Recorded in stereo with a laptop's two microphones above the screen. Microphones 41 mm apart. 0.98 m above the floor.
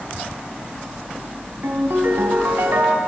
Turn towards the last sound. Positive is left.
turn(degrees=-65)  # may be behind; listen again after turning